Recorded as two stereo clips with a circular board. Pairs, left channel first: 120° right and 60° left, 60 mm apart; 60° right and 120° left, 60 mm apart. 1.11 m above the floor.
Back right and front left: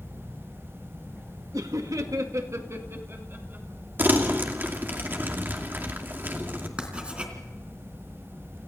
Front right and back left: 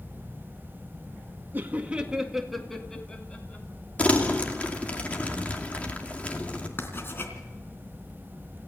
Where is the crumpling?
5° left, 2.5 m.